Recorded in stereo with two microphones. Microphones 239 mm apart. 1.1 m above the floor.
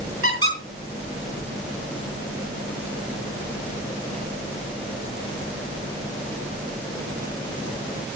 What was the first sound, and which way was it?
A squeak, 75° right (ahead or behind).